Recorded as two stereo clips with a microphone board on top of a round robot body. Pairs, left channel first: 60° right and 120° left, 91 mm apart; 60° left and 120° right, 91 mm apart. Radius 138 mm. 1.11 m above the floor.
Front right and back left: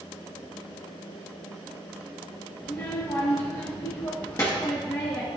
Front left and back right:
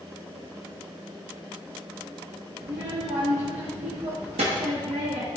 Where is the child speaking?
120° right, 1.1 m.